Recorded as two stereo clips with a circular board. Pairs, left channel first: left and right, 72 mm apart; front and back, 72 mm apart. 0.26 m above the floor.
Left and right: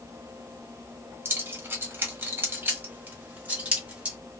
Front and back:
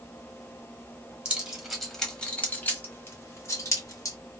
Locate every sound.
1.2 s keys jangling: 115° right, 1.1 m; by 4.2 s 20° right, 1.7 m